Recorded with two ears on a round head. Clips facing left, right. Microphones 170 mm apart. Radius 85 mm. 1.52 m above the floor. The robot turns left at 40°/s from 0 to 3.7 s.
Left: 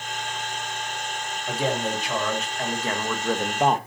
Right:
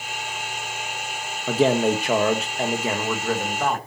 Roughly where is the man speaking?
Right.